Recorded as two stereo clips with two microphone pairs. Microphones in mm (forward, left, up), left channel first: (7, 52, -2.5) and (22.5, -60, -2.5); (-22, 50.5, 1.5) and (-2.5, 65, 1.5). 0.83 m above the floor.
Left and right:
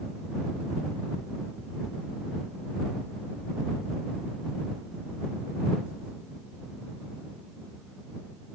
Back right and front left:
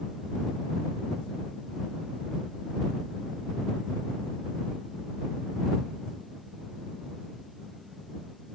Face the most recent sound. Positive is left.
No sound to turn to.